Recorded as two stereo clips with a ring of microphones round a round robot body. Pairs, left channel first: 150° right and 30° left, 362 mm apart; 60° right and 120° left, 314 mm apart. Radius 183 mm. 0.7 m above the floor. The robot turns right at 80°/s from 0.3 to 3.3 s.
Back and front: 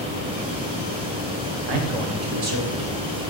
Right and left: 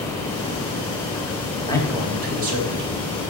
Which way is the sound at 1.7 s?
15° left.